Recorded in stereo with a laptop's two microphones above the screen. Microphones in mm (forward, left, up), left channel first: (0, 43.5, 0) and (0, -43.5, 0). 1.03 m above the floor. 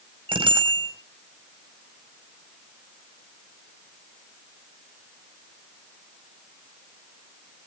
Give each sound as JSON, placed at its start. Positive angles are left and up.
{"t": 0.3, "sound": "a bicycle bell", "side_deg": -90, "distance_m": 4.5}